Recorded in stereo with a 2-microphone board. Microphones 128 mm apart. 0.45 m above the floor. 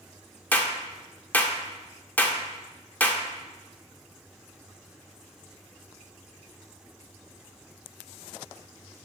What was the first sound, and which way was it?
A clap, 15° left (ahead or behind).